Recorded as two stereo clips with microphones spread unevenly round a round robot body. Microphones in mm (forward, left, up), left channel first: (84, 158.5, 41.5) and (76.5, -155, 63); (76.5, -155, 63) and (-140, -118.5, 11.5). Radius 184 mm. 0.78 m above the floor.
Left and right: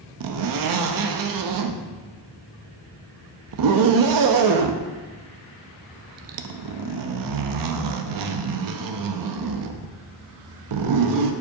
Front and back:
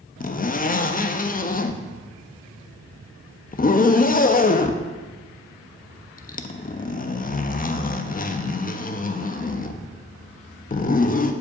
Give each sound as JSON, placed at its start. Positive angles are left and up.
{"t": 0.2, "sound": "a zipper", "azimuth_deg": -70, "distance_m": 0.7}